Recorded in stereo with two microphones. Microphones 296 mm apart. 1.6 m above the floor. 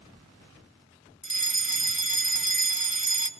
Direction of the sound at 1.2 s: 45° left (ahead or behind).